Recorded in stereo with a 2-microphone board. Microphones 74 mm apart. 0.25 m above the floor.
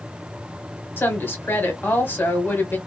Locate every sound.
1.0 s a woman speaking: 30° left (ahead or behind), 1.2 m